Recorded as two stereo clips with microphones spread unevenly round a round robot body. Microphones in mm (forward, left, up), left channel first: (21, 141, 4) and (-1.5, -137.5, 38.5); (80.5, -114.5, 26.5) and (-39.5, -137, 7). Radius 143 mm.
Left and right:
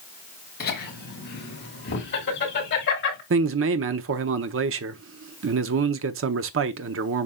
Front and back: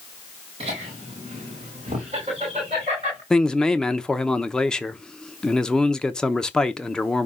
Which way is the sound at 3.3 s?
80° right.